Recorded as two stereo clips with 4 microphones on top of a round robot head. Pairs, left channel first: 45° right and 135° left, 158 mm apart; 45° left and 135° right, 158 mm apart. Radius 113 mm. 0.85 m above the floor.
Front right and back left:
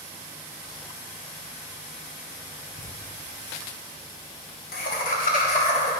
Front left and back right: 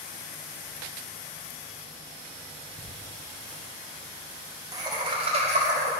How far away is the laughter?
About 2 m.